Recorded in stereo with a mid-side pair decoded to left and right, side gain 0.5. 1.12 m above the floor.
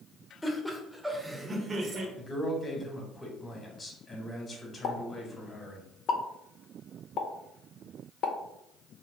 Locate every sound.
0.4 s laughter: 15° left, 1.0 m; by 2.1 s 50° right, 1.0 m
2.2 s a man speaking: 20° left, 1.1 m
4.8 s a pop: 65° left, 0.6 m